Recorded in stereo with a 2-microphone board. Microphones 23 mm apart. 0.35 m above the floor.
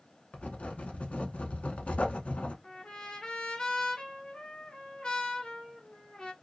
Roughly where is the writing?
Left.